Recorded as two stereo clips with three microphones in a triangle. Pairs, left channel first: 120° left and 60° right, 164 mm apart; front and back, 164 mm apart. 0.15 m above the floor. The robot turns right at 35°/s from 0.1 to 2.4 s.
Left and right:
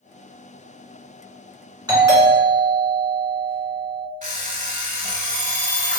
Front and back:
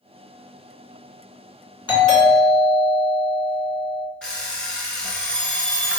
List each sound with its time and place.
1.9 s a doorbell: 25° right, 1.8 m; by 4.1 s 10° right, 1.8 m
4.2 s an alarm clock: 85° right, 0.7 m